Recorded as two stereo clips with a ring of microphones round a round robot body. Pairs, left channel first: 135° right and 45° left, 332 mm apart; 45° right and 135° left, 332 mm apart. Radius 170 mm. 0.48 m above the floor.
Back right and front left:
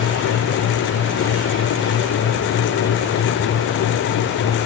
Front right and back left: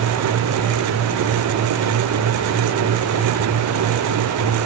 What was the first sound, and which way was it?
Only background noise.